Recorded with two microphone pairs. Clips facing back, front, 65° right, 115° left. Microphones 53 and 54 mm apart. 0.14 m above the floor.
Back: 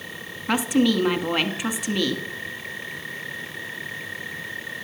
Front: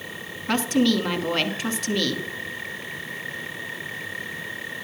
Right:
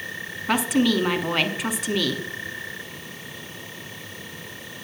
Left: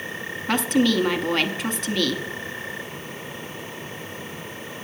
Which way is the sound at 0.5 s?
135° right.